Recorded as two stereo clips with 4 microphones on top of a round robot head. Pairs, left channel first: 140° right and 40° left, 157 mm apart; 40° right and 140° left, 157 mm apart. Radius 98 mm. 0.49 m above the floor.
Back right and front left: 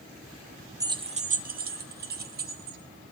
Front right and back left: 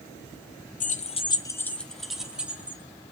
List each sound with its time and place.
0.8 s keys jangling: 25° right, 0.8 m; by 2.8 s 60° left, 2.0 m